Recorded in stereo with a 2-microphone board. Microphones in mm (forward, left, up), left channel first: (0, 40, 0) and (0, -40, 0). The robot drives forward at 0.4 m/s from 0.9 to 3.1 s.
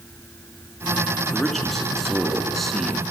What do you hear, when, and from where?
1.3 s a man speaking: centre (ahead or behind), 4 m